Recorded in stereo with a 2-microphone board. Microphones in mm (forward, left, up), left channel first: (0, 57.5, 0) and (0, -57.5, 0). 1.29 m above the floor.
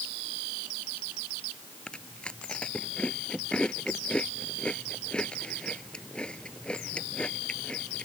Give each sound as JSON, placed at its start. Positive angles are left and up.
{"t": 1.9, "sound": "chewing", "side_deg": 10}